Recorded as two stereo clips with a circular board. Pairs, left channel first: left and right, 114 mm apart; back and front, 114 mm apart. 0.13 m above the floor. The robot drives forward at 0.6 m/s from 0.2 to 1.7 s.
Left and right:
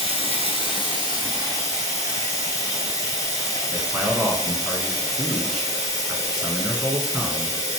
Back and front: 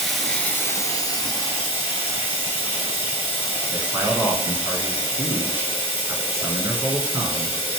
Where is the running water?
95° left, 0.8 m; by 7.8 s 145° left, 1.2 m.